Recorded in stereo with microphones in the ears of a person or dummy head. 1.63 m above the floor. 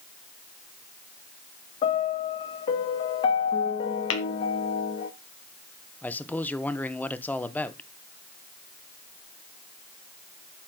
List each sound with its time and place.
1.8 s a piano: 35° left (ahead or behind), 1.2 m
4.1 s tapping: 70° left (ahead or behind), 1.9 m
6.0 s a man speaking: 5° left (ahead or behind), 1.0 m